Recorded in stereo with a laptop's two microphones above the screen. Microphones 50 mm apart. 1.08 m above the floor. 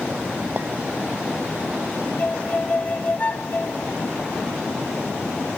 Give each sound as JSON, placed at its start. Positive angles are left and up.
{"t": 0.6, "sound": "a clink", "side_deg": -35}
{"t": 2.2, "sound": "a violin", "side_deg": 30}